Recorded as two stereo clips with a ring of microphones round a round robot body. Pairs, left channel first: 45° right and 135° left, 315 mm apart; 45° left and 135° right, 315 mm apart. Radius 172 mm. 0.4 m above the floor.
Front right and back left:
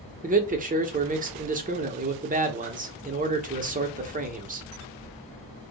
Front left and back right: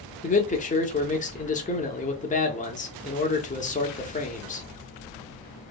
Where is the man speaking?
90° left, 0.8 m.